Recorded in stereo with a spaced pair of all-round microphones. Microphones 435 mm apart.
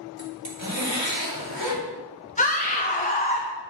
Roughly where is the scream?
Centre.